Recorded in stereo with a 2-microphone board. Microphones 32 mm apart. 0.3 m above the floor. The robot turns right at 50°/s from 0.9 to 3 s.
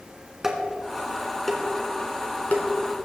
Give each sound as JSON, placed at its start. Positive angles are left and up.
{"t": 0.4, "sound": "dishes clattering", "side_deg": -15, "distance_m": 2.0}